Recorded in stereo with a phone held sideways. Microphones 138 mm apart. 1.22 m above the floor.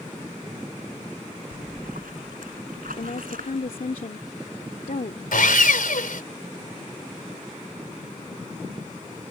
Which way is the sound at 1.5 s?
85° right.